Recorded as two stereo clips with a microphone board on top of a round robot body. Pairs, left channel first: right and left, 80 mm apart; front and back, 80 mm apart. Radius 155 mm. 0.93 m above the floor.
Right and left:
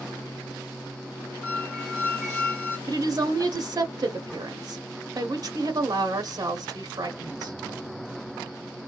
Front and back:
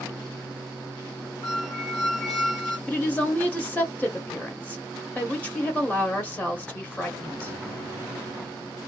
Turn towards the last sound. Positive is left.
turn(degrees=70)